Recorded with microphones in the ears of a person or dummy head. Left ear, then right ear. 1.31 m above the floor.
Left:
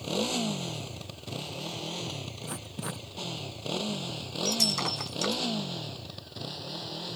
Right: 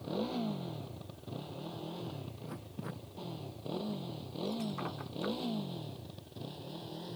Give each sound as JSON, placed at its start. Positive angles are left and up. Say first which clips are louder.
{"t": 0.0, "sound": "a motorcycle", "louder": "left 7 dB", "side_deg": 80}
{"t": 2.4, "sound": "writing", "louder": "left 7 dB", "side_deg": 45}
{"t": 4.5, "sound": "breaking glass", "louder": "left 13 dB", "side_deg": 85}